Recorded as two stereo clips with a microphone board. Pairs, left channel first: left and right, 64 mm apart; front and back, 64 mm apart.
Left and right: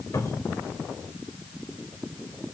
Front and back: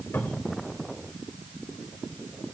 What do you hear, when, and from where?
0.1 s a cupboard door: 55° left, 4 m